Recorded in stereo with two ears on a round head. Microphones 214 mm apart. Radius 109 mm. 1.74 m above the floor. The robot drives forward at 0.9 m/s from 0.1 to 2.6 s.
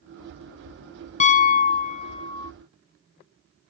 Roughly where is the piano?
Left.